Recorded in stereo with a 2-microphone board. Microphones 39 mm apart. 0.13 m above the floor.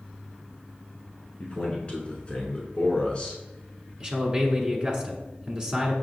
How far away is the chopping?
I don't hear chopping.